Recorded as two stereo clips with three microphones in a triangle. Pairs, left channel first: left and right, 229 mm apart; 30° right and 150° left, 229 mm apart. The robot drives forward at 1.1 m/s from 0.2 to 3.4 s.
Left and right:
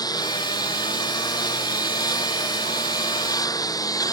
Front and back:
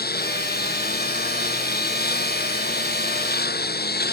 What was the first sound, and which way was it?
A lawn mower, 15° left.